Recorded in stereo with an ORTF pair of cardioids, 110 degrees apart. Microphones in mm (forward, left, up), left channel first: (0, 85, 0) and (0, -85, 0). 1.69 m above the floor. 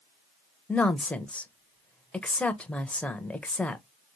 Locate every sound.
0.7 s a woman speaking: 10° left, 0.7 m